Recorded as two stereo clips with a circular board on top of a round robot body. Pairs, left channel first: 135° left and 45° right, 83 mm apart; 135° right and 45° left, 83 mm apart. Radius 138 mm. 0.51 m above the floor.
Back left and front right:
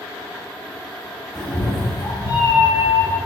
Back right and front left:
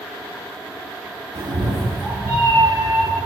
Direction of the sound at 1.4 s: 50° left.